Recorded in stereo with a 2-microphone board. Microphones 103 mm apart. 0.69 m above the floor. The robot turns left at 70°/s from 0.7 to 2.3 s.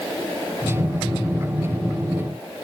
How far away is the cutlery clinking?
I don't hear cutlery clinking.